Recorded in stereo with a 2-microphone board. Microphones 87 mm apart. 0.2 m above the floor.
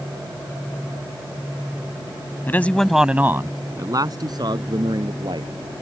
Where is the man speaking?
25° left (ahead or behind); by 5.7 s 60° right (ahead or behind).